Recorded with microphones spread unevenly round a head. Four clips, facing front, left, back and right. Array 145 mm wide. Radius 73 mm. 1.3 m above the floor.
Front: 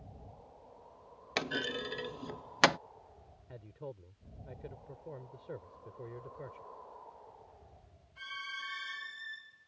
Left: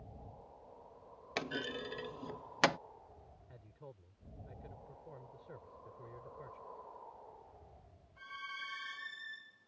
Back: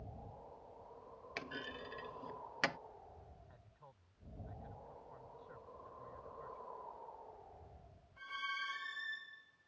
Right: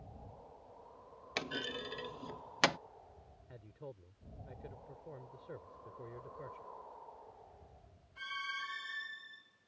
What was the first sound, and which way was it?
A clunk, 30° left.